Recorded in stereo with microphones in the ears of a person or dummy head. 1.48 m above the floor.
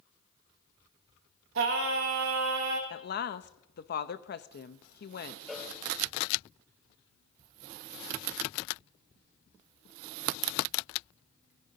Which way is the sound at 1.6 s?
70° right (ahead or behind).